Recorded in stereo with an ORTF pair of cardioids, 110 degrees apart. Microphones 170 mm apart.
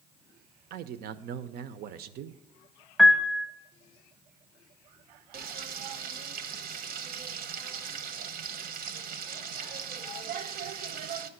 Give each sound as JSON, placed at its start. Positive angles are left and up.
{"t": 0.7, "sound": "a man speaking", "azimuth_deg": -65, "distance_m": 0.7}
{"t": 3.0, "sound": "a piano", "azimuth_deg": 0, "distance_m": 0.9}
{"t": 5.3, "sound": "frying", "azimuth_deg": -65, "distance_m": 0.8}